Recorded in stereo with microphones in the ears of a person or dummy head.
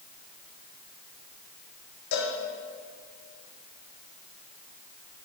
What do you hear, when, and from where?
2.1 s a cowbell: 75° left (ahead or behind), 2 m